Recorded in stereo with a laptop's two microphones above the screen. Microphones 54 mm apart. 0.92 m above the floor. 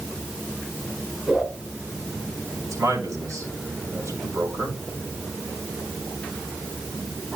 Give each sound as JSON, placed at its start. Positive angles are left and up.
{"t": 1.3, "sound": "a whoosh", "side_deg": -5, "distance_m": 5.5}
{"t": 2.6, "sound": "a man speaking", "side_deg": -75, "distance_m": 4.5}